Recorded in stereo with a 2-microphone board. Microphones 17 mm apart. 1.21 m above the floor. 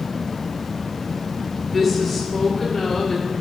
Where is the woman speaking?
5° left (ahead or behind), 2.0 m; by 3.3 s 25° left (ahead or behind), 2.5 m.